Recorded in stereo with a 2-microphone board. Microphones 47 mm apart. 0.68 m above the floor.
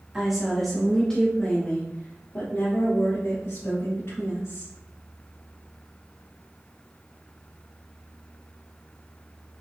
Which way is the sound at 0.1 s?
15° right (ahead or behind).